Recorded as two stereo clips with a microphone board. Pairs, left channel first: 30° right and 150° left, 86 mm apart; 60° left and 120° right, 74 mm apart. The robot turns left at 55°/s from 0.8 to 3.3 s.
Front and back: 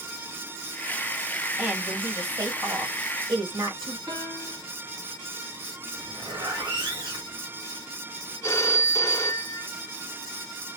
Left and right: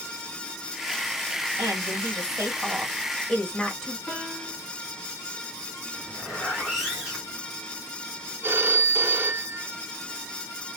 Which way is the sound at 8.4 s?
70° right.